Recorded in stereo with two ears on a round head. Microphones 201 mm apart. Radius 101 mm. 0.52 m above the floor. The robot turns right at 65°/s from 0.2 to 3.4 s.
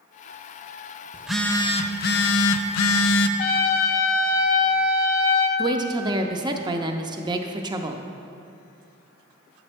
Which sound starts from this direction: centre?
A woman speaking, at 5.6 s.